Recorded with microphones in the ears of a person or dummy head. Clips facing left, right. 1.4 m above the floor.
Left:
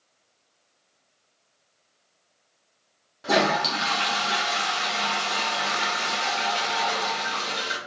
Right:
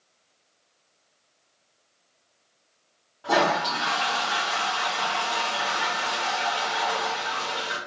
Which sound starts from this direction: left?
A toilet flushing, at 3.2 s.